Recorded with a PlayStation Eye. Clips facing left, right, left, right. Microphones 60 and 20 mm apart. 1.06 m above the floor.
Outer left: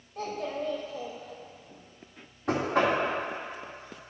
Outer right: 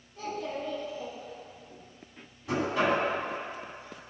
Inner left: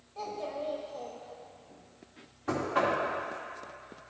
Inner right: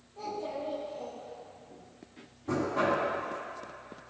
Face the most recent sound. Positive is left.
turn(degrees=60)  # may be behind; listen again after turning